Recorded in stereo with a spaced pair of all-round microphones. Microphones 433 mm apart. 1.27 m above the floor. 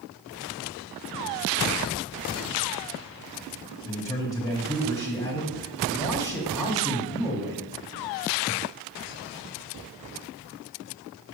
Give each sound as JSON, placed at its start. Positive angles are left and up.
{"t": 3.9, "sound": "a man speaking", "side_deg": 10, "distance_m": 1.3}